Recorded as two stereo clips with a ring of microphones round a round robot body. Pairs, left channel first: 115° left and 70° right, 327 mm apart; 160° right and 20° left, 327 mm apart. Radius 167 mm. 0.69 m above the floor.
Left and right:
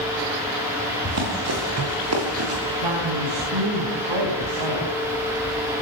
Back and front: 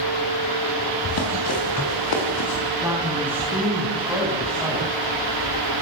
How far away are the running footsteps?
About 9.5 m.